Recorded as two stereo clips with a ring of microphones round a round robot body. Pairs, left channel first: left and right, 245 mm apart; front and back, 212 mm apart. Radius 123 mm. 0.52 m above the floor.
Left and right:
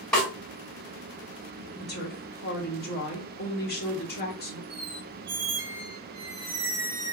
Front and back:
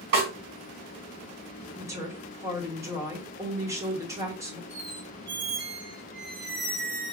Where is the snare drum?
Straight behind, 1.9 m.